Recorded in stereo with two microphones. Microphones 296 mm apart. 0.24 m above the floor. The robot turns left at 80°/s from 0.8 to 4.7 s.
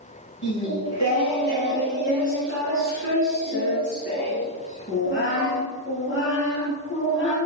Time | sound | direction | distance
0.4 | singing | 90° left | 2.5 m